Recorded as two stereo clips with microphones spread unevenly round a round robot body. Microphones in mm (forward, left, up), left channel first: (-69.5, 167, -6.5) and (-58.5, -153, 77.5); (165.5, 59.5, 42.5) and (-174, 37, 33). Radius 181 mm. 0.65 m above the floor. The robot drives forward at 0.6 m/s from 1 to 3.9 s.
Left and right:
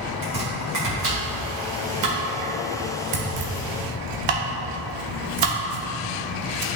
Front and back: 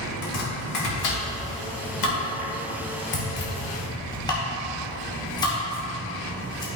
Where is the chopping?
30° right, 2.5 m; by 6.7 s 75° right, 1.2 m.